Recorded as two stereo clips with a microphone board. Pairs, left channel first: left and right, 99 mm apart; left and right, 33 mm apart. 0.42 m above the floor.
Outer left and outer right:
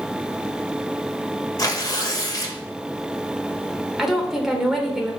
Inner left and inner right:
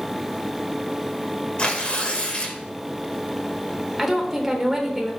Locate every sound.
1.6 s tearing paper: 40° left (ahead or behind), 1.0 m
4.0 s a woman speaking: centre (ahead or behind), 1.0 m